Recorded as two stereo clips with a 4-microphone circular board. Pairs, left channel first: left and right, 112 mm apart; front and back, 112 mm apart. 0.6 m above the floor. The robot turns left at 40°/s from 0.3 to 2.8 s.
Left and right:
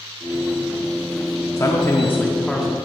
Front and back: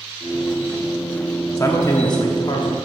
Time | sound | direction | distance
1.6 | a man speaking | 45° left | 0.9 m